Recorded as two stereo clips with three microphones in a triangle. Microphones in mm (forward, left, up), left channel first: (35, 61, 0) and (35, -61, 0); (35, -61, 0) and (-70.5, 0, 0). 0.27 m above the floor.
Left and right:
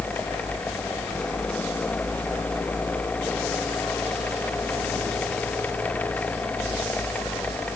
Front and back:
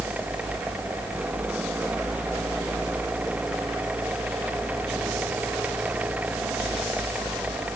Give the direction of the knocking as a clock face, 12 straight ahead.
No knocking in this recording.